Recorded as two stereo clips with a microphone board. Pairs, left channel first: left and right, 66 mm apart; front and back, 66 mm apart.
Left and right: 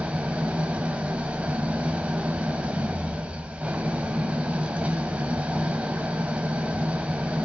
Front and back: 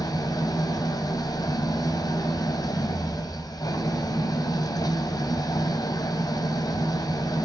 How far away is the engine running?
About 2.5 m.